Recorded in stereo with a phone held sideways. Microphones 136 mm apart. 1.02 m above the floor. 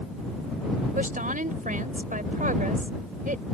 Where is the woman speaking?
80° right.